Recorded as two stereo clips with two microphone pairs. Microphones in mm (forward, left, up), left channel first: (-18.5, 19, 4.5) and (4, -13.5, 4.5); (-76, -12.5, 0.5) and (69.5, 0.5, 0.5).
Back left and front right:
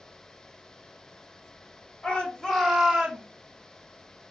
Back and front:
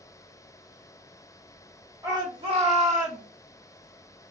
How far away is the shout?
About 1.8 m.